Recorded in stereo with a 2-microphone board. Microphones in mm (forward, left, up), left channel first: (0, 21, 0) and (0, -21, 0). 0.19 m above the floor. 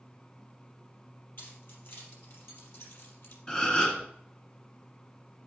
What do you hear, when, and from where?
1.4 s keys jangling: 55° left (ahead or behind), 4 m; by 3.4 s 75° left (ahead or behind), 4 m
3.5 s a gasp: 15° left (ahead or behind), 1.6 m